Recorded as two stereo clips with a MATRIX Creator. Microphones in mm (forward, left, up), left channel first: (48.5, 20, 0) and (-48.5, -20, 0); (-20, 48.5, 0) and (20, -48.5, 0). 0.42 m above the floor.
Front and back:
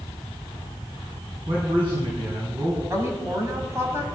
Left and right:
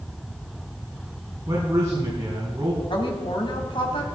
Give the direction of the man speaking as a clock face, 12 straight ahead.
4 o'clock.